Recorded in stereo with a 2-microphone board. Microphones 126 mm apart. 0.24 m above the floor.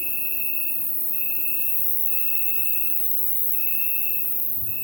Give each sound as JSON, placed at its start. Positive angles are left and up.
{"t": 0.0, "sound": "an insect", "side_deg": -50, "distance_m": 1.1}